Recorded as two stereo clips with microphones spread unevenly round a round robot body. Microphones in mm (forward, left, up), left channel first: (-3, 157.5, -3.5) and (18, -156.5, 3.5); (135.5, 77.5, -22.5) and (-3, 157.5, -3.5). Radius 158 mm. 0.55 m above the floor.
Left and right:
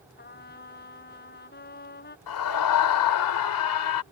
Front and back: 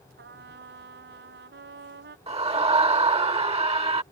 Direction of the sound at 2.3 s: 95° left.